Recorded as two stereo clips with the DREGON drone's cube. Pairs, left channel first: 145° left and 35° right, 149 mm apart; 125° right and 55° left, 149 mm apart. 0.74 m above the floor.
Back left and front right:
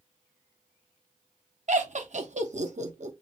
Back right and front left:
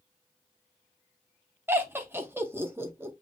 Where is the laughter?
15° right, 0.9 m.